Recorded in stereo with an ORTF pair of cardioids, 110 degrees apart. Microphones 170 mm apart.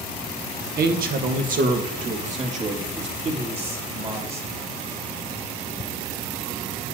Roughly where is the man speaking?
Ahead right.